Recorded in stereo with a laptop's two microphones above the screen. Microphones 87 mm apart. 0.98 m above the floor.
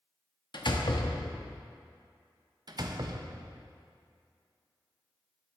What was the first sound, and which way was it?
A door slam, 60° left (ahead or behind).